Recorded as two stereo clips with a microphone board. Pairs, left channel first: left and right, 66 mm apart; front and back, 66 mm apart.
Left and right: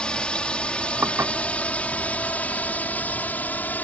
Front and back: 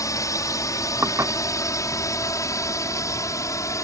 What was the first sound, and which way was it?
A drone, 15° left.